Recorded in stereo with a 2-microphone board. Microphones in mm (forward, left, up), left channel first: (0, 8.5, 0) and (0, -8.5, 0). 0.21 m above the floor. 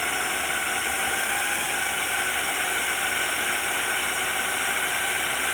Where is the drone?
5° left (ahead or behind); by 5.6 s 10° right (ahead or behind).